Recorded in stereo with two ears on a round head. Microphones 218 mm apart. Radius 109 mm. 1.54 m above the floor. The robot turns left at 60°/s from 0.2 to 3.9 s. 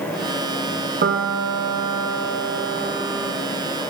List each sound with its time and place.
1.0 s a piano: 40° right, 1.8 m; by 3.3 s straight behind, 1.8 m